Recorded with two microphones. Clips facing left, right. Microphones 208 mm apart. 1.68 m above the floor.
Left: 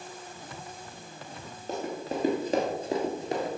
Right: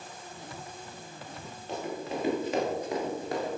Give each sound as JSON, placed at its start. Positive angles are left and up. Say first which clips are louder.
{"t": 1.7, "sound": "running footsteps", "louder": "left 2 dB", "side_deg": 45, "distance_m": 2.5}